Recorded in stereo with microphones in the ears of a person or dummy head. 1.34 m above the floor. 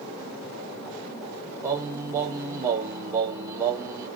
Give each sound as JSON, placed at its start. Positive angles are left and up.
{"t": 1.6, "sound": "singing", "side_deg": -20, "distance_m": 0.8}